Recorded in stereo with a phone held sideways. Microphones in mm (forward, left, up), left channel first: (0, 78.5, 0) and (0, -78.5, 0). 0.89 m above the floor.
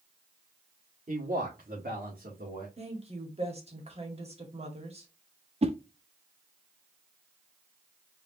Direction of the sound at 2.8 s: 40° right (ahead or behind).